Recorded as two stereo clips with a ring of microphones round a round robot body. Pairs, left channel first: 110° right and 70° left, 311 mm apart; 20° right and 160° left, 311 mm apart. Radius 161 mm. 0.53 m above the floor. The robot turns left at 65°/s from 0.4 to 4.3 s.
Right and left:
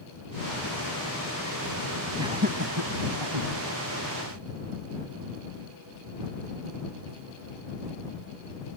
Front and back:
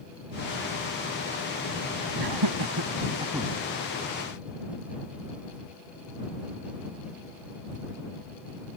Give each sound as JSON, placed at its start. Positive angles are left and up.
{"t": 2.2, "sound": "laughter", "azimuth_deg": 150}